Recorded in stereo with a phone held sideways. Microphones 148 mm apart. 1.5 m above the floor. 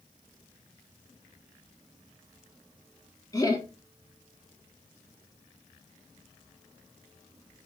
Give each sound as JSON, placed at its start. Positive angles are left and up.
{"t": 3.3, "sound": "laughter", "side_deg": 25, "distance_m": 1.1}